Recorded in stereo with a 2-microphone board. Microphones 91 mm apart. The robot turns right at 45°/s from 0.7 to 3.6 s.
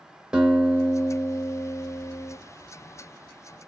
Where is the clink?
No clink in this recording.